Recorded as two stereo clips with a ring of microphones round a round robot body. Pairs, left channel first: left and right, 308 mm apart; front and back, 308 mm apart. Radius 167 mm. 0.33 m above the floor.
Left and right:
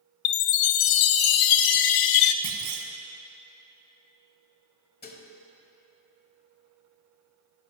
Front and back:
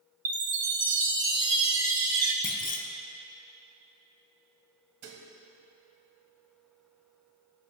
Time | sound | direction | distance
0.2 | a chime | 100° left | 0.6 m
2.4 | a clunk | 65° right | 1.1 m
5.0 | dishes clattering | 145° left | 1.2 m